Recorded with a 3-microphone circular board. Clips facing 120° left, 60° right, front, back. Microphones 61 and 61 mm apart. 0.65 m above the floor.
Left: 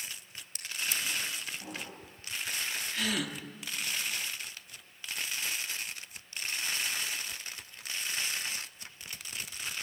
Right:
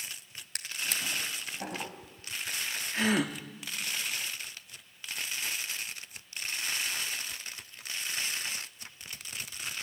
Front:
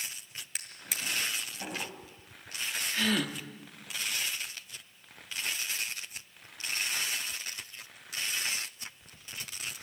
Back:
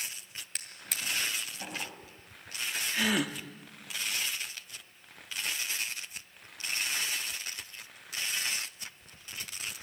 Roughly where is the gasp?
Right.